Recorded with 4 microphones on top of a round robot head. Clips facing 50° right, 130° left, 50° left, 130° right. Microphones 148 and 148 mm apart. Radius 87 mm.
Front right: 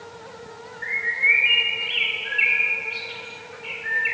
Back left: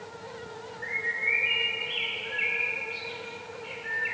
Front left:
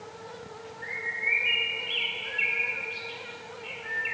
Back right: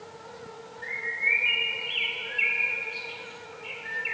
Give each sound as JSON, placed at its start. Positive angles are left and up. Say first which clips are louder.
{"t": 0.8, "sound": "a bird", "louder": "front right 7 dB, back right 3 dB", "azimuth_deg": -45, "distance_m": 0.8}